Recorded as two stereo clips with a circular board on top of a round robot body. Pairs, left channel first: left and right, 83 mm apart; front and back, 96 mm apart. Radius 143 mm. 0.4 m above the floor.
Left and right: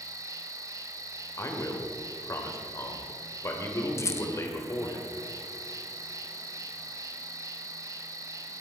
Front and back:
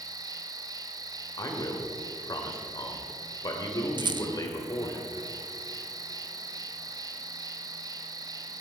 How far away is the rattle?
About 0.9 m.